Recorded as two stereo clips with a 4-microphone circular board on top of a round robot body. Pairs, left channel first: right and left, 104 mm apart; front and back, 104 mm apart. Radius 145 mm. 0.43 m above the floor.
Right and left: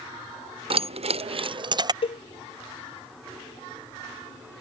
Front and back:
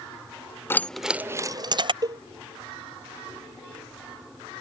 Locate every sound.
0.7 s keys jangling: 65° left; by 1.9 s 140° left
2.0 s a cowbell: 125° right